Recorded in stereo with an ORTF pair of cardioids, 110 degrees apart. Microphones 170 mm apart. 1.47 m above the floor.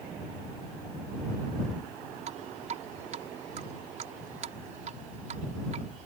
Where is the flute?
No flute in this recording.